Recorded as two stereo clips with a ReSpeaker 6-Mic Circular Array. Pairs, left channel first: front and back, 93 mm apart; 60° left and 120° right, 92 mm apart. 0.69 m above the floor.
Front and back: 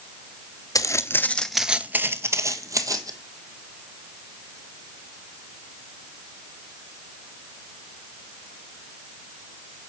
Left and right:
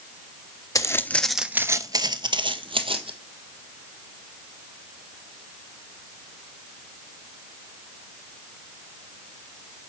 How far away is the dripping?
No dripping in this recording.